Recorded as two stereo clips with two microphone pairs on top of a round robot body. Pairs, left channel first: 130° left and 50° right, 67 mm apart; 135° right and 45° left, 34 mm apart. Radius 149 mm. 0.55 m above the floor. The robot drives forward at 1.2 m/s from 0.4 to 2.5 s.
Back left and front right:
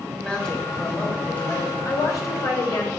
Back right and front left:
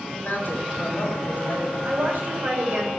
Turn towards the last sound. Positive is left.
turn(degrees=100)